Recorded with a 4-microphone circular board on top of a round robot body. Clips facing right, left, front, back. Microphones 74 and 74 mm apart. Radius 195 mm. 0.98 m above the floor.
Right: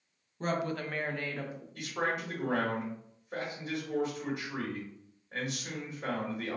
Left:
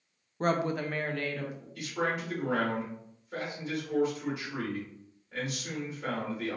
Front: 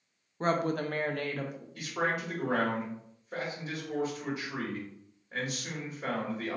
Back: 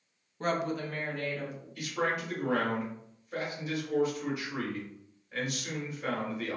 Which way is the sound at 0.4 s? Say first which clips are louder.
Left 4 dB, front 2 dB; 60° left.